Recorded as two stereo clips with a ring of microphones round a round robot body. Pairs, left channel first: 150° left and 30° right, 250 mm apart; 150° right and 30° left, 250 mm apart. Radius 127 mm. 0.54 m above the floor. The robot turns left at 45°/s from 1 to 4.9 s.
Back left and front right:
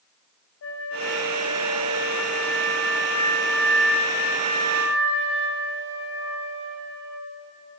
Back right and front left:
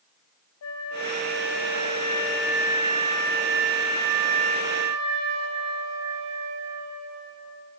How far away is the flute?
About 2.0 m.